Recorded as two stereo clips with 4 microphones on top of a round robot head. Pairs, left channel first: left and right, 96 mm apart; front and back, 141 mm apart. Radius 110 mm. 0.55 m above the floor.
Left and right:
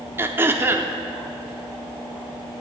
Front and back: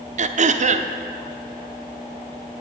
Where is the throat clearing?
155° right, 0.8 m.